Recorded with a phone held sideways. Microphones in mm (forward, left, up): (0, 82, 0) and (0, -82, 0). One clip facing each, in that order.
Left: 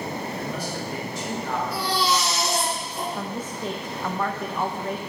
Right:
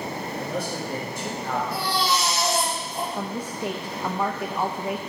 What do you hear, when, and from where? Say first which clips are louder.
0.4 s a man speaking: right 1 dB; 65° right (ahead or behind), 5 m
1.7 s a baby crying: left 3 dB; 55° right (ahead or behind), 4.5 m
3.1 s a woman speaking: right 1 dB; 10° right (ahead or behind), 0.6 m